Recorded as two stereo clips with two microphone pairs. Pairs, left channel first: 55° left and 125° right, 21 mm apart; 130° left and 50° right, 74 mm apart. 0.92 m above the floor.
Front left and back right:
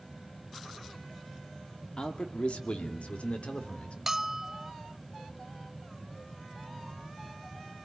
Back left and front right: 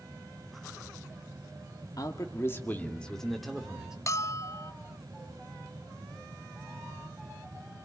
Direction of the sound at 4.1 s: 165° left.